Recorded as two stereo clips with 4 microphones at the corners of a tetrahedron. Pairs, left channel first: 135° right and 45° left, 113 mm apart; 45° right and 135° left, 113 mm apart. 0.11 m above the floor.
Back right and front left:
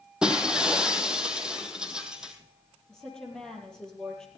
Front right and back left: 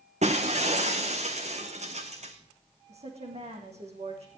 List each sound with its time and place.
0.2 s breaking glass: 130° left, 1.7 m
2.9 s a woman speaking: 140° left, 4 m